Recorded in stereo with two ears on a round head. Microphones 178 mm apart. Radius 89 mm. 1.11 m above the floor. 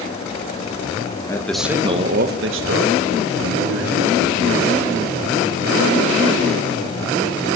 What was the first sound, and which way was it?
A man speaking, 15° left (ahead or behind).